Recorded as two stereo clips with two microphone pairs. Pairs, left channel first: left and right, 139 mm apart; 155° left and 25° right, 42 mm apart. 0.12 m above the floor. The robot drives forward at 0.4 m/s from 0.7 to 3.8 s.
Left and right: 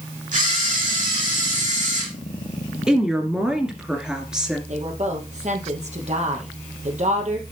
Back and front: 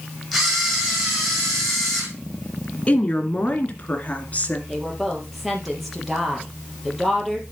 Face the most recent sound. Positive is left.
turn(degrees=-115)